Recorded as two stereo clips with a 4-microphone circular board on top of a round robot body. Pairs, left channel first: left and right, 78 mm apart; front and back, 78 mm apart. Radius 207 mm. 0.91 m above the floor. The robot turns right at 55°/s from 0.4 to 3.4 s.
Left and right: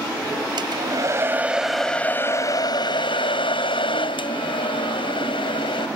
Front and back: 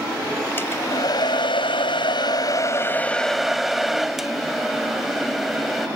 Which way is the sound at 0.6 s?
65° right.